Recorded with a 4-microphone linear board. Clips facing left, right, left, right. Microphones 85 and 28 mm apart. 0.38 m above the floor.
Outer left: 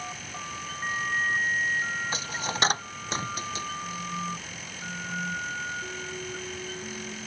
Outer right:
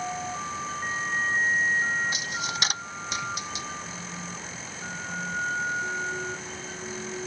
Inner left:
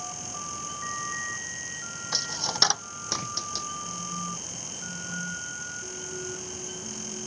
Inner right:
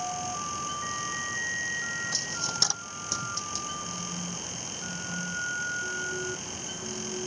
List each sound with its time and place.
2.1 s a dropped coin: 35° left (ahead or behind)